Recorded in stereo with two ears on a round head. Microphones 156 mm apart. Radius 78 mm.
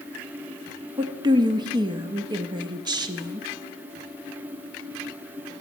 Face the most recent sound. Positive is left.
turn(degrees=-25)  # may be behind; listen again after turning